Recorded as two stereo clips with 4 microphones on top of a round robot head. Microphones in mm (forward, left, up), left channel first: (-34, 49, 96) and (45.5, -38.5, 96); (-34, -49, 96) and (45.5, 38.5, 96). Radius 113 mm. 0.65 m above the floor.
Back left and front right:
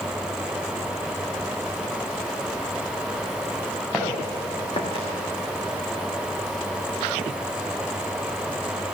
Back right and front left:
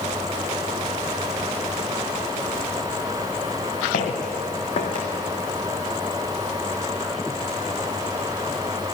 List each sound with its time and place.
3.9 s footsteps: 145° right, 2 m; by 5.0 s 170° left, 2 m